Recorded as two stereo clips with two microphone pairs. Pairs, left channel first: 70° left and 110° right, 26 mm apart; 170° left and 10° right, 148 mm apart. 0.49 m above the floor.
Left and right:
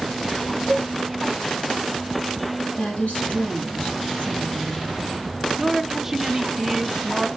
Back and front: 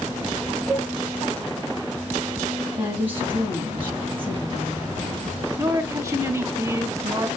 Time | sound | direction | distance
0.7 | a cowbell | 80° left | 1.8 m
2.8 | a woman speaking | 65° left | 3.5 m
5.6 | a woman speaking | 55° right | 1.3 m